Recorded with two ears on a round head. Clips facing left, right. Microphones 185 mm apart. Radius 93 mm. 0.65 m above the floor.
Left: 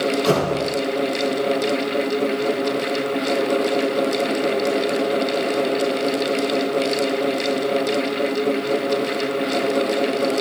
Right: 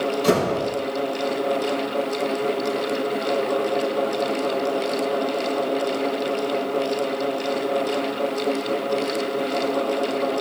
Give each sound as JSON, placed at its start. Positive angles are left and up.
{"t": 0.2, "sound": "a door slam", "side_deg": -30, "distance_m": 9.5}